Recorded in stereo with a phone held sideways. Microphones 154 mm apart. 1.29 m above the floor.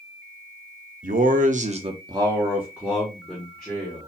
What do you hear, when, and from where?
1.0 s a man speaking: 60° right (ahead or behind), 0.6 m; by 4.1 s 5° left (ahead or behind), 1.6 m